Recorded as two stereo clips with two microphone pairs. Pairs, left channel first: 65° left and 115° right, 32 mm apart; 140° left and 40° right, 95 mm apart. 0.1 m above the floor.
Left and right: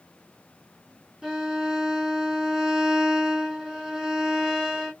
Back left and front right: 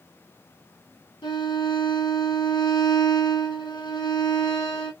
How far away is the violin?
About 2 m.